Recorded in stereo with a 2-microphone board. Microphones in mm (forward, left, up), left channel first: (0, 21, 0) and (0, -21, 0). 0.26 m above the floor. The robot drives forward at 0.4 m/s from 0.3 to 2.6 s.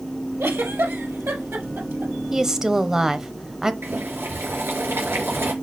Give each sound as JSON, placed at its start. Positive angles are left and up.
{"t": 0.4, "sound": "a giggle", "side_deg": -80, "distance_m": 4.0}
{"t": 2.3, "sound": "a woman speaking", "side_deg": -15, "distance_m": 0.9}
{"t": 3.8, "sound": "boiling", "side_deg": -60, "distance_m": 5.0}